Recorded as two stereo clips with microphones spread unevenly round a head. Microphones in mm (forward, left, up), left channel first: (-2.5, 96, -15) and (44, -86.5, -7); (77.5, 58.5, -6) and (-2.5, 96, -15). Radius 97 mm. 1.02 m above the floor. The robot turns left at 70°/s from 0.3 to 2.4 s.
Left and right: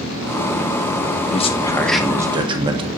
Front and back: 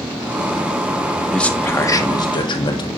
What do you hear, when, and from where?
1.3 s a man speaking: 60° left, 1.1 m; by 2.9 s 15° right, 1.1 m